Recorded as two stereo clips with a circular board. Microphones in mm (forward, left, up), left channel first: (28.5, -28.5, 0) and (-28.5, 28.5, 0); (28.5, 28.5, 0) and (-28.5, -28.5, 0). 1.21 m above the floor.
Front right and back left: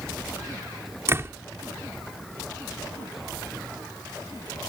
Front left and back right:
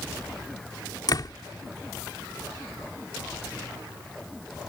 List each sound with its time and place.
1.1 s a door slam: 80° left